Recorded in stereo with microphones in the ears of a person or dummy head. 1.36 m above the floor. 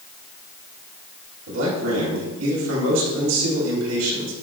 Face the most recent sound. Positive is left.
turn(degrees=-85)